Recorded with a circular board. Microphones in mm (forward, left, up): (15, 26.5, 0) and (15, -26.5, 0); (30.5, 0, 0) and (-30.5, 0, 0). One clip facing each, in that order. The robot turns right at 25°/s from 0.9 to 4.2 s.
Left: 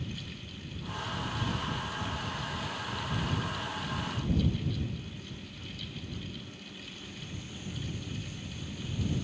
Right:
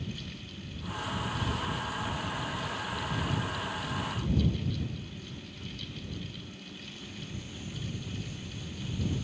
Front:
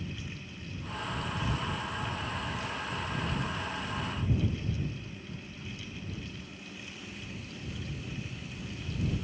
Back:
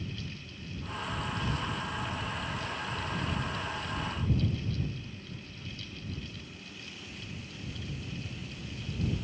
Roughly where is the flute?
No flute in this recording.